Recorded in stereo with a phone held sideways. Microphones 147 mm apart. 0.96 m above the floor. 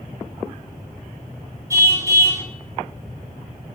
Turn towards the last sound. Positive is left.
turn(degrees=-20)  # may be behind; listen again after turning